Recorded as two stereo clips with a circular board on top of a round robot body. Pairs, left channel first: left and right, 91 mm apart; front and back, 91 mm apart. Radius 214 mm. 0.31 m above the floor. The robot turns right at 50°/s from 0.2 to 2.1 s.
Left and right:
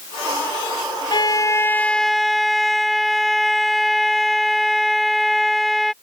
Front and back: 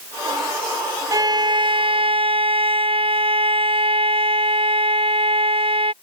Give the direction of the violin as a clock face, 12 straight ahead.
8 o'clock.